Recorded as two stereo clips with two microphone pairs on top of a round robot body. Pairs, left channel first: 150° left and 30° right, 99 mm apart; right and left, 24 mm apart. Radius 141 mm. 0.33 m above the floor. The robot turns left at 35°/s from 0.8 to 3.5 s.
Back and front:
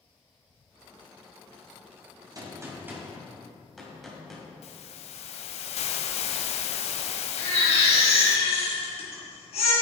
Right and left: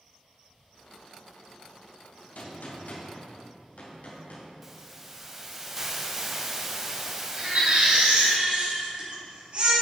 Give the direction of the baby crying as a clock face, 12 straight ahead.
8 o'clock.